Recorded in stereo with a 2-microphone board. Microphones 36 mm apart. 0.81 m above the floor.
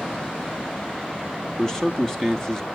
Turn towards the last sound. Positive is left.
turn(degrees=10)  # may be behind; listen again after turning